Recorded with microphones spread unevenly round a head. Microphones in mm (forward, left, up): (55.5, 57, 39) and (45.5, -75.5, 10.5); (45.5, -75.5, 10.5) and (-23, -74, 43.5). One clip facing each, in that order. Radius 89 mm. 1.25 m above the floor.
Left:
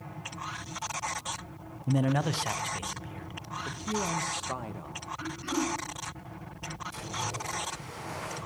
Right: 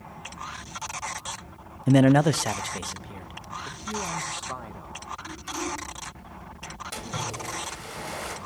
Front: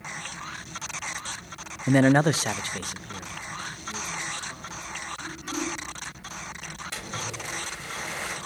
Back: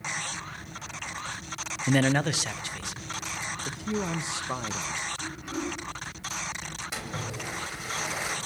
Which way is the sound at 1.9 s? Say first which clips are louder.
Right 10 dB, front 5 dB; 85° right.